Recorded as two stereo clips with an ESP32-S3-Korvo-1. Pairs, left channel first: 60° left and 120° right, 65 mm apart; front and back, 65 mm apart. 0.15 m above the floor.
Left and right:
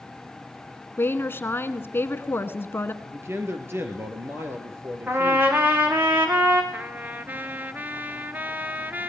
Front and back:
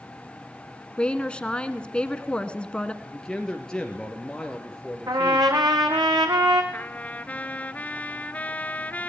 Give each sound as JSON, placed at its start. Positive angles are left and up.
{"t": 1.0, "sound": "a woman speaking", "azimuth_deg": 60, "distance_m": 1.3}
{"t": 3.0, "sound": "a man speaking", "azimuth_deg": -75, "distance_m": 3.0}
{"t": 5.1, "sound": "a trumpet", "azimuth_deg": 180, "distance_m": 3.0}
{"t": 6.7, "sound": "a trumpet", "azimuth_deg": -65, "distance_m": 0.8}